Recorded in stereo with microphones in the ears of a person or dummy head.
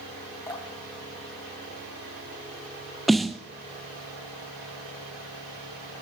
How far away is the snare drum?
About 0.5 m.